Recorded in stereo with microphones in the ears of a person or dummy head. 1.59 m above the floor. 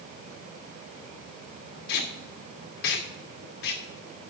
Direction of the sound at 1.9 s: 65° left (ahead or behind).